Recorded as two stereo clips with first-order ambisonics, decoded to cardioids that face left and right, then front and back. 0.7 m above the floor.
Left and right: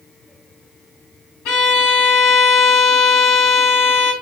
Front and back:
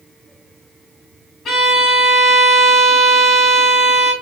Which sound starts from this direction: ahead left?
A violin, at 1.4 s.